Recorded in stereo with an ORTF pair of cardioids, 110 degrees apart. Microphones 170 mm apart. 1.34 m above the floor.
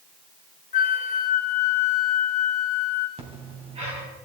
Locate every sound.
0.7 s a flute: 45° left, 1.4 m
3.2 s breathing: 35° right, 4 m